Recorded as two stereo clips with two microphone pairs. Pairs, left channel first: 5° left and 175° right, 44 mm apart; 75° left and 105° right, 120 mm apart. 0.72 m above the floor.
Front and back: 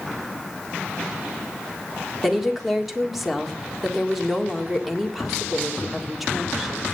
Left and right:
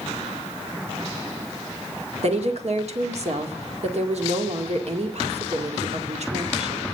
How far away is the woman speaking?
About 2 m.